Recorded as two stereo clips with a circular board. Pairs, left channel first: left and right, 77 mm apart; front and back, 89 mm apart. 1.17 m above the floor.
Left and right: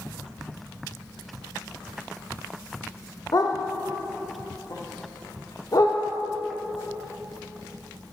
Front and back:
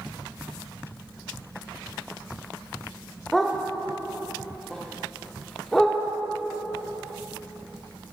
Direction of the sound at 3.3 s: 85° left.